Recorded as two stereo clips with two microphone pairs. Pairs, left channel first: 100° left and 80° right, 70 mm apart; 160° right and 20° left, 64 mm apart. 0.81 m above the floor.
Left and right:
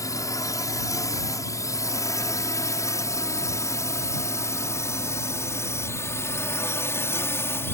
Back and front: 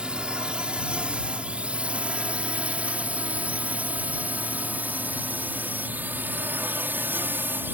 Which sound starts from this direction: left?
A drone, at 0.0 s.